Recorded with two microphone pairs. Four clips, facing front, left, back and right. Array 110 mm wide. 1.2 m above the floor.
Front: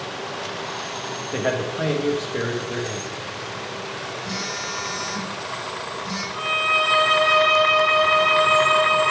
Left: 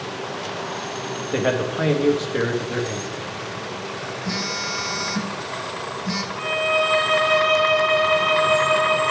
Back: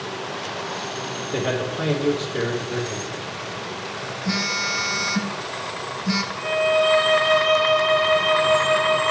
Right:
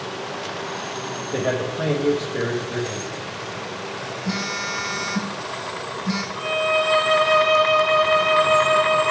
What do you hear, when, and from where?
1.3 s a man speaking: 70° left, 1.3 m
4.2 s a phone buzzing: 145° right, 1.2 m
6.3 s a violin: 25° left, 2.5 m